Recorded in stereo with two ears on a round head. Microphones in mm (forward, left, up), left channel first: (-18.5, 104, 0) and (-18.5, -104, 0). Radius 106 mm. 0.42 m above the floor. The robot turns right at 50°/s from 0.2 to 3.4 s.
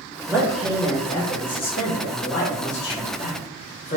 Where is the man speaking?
15° right, 1.1 m; by 4.0 s 140° left, 1.1 m.